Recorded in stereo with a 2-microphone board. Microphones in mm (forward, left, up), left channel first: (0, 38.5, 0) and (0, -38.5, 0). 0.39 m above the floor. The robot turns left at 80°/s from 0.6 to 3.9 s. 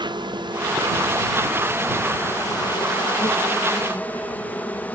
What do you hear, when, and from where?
0.0 s an insect: 75° right; by 5.0 s 20° left